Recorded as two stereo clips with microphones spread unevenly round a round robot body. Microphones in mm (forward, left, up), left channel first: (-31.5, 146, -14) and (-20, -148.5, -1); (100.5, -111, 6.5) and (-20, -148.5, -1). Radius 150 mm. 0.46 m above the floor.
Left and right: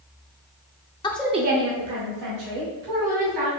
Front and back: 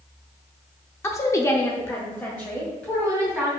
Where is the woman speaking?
60° left, 0.7 m; by 3.5 s 65° right, 3 m.